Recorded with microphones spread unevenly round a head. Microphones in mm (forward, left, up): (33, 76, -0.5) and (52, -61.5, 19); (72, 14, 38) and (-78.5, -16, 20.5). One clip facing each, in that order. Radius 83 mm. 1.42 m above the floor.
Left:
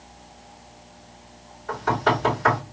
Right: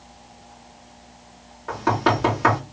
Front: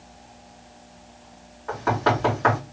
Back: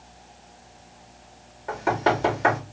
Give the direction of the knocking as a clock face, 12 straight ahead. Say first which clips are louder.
Right 2 dB, even; 3 o'clock.